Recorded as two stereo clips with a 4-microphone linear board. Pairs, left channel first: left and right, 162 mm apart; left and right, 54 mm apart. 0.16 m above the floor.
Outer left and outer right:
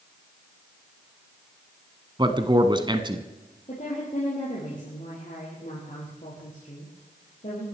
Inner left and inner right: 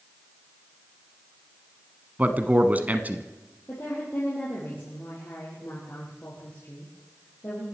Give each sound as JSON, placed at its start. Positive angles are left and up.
{"t": 2.2, "sound": "a man speaking", "side_deg": -30, "distance_m": 1.2}
{"t": 3.7, "sound": "a woman speaking", "side_deg": 50, "distance_m": 5.5}